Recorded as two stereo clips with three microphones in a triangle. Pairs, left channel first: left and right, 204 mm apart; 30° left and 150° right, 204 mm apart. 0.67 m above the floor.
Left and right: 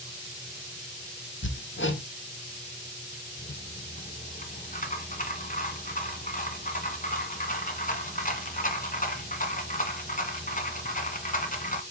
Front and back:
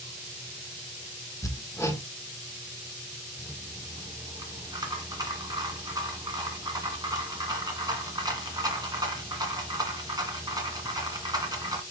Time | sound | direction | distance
1.4 | hammering | 105° left | 1.4 m
3.4 | a rattle | 140° left | 2 m